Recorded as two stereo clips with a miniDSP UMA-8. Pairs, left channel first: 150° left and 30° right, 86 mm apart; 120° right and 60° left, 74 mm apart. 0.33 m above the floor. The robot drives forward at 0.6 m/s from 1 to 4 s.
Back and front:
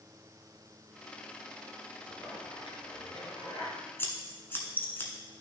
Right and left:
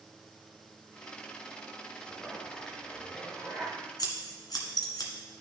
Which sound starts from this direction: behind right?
Scissors, at 4.0 s.